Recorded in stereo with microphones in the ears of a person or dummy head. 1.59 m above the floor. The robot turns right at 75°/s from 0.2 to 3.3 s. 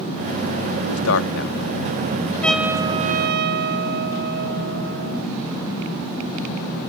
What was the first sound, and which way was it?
A man speaking, 80° left.